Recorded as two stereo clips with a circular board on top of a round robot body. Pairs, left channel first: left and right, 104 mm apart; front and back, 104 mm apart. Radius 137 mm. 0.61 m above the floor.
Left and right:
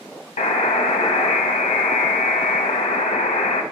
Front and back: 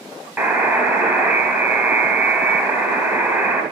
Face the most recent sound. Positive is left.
turn(degrees=100)